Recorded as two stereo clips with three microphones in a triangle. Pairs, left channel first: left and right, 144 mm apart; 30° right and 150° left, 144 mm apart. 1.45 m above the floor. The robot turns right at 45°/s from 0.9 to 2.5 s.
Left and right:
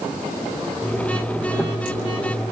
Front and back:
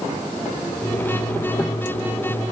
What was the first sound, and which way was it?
Only background noise.